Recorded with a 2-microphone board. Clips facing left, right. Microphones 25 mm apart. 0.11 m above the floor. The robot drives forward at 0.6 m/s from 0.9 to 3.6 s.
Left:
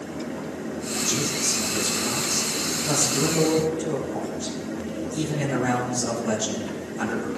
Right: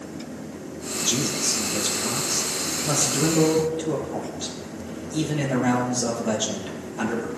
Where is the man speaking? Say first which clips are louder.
Right 2 dB; 60° right (ahead or behind), 3.5 m; by 7.3 s 55° right (ahead or behind), 3.5 m.